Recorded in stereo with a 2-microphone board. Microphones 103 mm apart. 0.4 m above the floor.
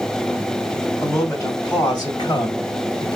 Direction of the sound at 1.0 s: 30° left (ahead or behind).